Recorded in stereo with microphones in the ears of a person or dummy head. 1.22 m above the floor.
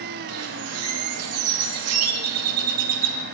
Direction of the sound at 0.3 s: 80° right.